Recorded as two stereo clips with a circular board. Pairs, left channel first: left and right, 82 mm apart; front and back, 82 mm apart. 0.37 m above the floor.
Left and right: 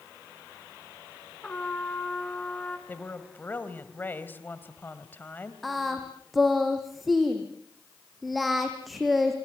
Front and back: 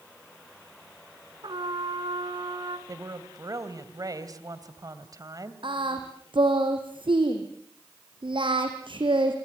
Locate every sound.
1.4 s a trumpet: 165° left, 2 m
2.9 s a woman speaking: 150° left, 2 m
5.6 s singing: straight behind, 3.5 m